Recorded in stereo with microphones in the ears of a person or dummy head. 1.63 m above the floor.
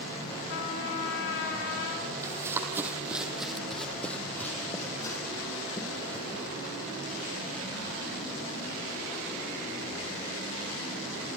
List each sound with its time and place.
0.5 s a trumpet: 55° left (ahead or behind), 3 m
2.2 s running footsteps: 20° right (ahead or behind), 3.5 m; by 6.4 s 25° left (ahead or behind), 5 m